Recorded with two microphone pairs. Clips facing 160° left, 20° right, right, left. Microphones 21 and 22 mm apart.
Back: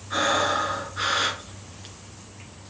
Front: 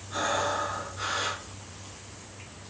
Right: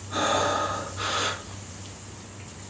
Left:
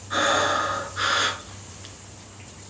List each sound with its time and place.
0.1 s breathing: 110° left, 2 m